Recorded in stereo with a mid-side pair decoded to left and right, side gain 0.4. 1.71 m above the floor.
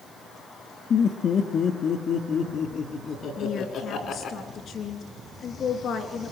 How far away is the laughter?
About 2.5 m.